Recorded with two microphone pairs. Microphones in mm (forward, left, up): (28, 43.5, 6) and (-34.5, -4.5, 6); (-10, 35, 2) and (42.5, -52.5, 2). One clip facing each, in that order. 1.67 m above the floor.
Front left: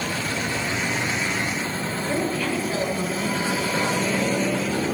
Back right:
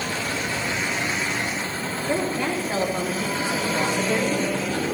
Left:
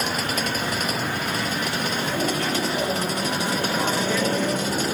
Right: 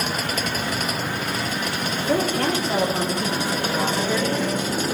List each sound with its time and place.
2.1 s a woman speaking: 80° right, 3 m; by 4.6 s 145° right, 2.5 m